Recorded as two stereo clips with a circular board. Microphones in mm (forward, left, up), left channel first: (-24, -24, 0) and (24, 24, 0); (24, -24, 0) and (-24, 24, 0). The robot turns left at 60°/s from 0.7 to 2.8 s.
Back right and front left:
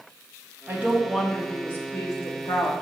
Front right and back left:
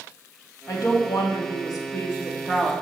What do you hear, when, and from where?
0.7 s a woman speaking: 15° right, 2 m; by 2.7 s 135° right, 2 m